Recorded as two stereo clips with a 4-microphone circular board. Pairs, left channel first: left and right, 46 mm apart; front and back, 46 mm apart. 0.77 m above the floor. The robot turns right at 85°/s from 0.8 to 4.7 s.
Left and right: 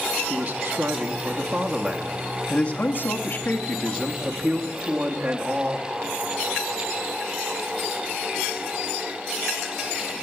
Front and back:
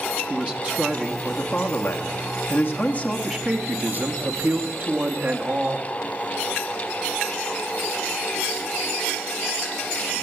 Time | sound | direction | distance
0.3 | a man speaking | 130° right | 1.0 m